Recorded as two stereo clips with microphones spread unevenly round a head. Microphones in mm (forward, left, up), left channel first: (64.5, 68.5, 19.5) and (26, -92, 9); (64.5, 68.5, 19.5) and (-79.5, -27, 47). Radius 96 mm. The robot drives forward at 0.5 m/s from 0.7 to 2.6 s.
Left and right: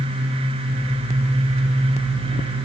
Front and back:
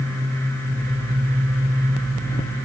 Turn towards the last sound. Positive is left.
No sound to turn to.